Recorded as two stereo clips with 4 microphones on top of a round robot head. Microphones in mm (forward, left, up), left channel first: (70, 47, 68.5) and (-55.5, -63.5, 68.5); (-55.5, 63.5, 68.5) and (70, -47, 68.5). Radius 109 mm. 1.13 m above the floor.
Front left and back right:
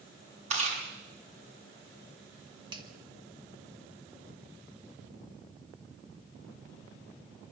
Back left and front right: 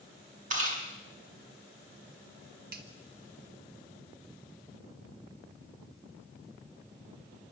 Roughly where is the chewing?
Right.